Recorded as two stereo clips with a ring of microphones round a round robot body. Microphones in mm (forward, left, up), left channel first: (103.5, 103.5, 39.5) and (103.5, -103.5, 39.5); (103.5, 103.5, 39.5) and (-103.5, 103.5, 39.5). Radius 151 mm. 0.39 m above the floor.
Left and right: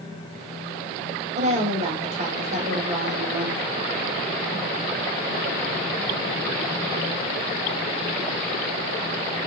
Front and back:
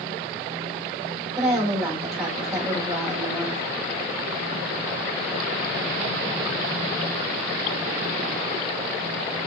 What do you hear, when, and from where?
1.4 s a woman speaking: 95° right, 1.2 m